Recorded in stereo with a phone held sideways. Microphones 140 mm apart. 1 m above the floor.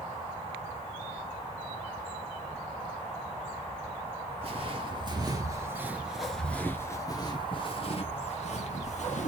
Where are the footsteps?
45° right (ahead or behind), 1.4 m; by 9.3 s 60° left (ahead or behind), 1.8 m.